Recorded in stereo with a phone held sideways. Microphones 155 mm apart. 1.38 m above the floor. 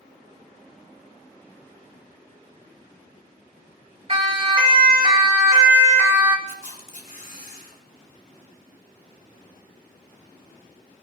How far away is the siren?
About 3.5 m.